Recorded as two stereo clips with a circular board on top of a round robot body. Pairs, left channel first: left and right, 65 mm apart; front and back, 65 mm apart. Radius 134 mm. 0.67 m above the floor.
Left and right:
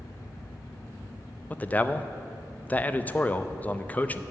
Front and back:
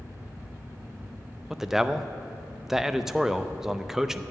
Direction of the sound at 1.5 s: 105° left.